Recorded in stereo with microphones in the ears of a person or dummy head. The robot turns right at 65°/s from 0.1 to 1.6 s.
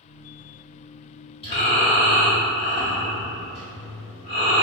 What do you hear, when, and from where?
1.4 s breathing: 30° left (ahead or behind), 1.9 m; by 4.6 s 40° left (ahead or behind), 1.9 m